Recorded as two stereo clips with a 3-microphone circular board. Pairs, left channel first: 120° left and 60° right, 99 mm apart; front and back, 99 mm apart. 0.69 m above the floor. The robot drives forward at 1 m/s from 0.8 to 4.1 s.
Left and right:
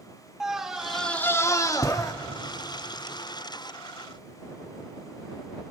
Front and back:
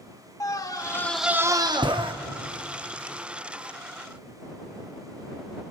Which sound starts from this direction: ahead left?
A scream, at 0.4 s.